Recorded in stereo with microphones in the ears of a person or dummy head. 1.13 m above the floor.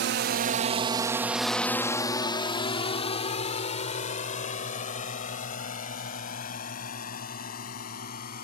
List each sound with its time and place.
0.0 s a drone: 60° right (ahead or behind); by 8.4 s 55° left (ahead or behind)